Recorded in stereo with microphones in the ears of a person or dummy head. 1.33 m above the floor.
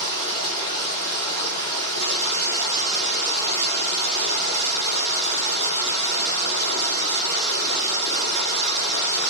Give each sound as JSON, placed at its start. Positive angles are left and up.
{"t": 0.0, "sound": "running water", "side_deg": -75, "distance_m": 1.4}